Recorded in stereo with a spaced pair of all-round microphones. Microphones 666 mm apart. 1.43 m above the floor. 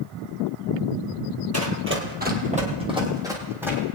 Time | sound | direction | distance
1.5 | running footsteps | 20° right (ahead or behind) | 1.8 m